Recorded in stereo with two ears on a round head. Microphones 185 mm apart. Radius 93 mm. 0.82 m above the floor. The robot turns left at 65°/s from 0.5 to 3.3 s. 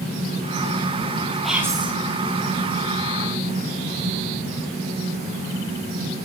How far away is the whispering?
About 6 m.